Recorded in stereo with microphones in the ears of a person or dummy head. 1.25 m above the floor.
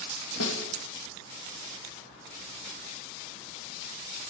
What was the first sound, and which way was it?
A snare drum, 80° left.